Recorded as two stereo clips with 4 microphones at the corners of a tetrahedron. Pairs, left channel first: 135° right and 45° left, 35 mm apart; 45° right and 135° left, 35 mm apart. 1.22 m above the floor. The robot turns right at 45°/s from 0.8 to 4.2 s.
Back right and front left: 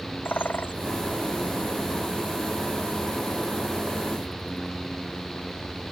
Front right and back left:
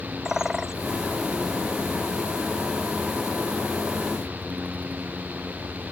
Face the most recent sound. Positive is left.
turn(degrees=5)